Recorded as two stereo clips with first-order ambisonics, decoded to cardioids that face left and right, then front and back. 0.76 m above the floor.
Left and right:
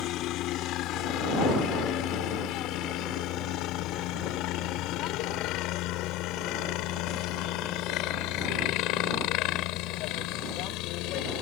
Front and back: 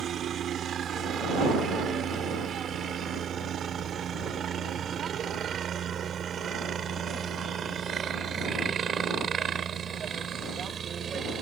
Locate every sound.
0.0 s a helicopter: 125° left; by 11.4 s 115° left